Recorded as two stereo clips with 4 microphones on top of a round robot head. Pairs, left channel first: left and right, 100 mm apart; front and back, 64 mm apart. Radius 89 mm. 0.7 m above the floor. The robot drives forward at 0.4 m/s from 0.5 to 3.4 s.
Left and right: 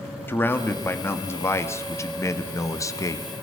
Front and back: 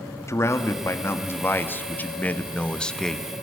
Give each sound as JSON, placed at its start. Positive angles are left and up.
{"t": 0.3, "sound": "a man speaking", "azimuth_deg": 30, "distance_m": 1.7}